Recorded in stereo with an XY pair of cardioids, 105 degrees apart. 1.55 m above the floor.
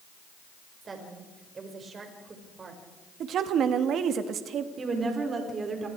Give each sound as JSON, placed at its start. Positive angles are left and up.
{"t": 0.8, "sound": "a woman speaking", "azimuth_deg": -40, "distance_m": 6.0}
{"t": 3.2, "sound": "a woman speaking", "azimuth_deg": -65, "distance_m": 2.0}
{"t": 4.8, "sound": "a woman speaking", "azimuth_deg": -40, "distance_m": 5.0}